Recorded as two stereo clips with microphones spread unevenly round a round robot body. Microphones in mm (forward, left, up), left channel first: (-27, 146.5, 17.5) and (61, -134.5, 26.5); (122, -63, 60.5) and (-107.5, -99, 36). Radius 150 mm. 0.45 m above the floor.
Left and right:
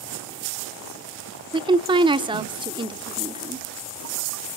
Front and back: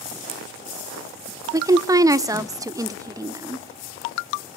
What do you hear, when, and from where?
1.5 s a woman speaking: 130° right, 0.8 m